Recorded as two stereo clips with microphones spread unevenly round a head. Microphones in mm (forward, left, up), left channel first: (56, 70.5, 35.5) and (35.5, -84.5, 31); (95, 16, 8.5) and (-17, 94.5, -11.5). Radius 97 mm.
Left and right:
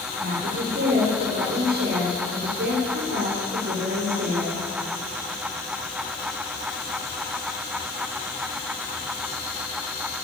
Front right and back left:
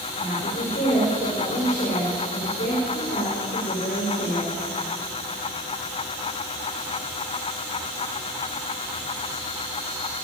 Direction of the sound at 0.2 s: 75° right.